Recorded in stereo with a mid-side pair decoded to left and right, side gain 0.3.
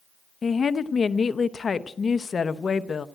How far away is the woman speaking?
About 0.8 m.